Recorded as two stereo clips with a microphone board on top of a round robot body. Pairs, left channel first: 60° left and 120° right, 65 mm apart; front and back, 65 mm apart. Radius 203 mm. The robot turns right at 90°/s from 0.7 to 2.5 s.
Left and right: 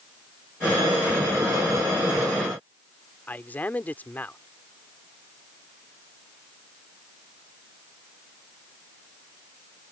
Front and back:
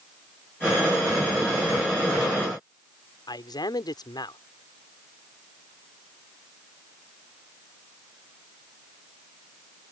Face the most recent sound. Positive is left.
turn(degrees=-5)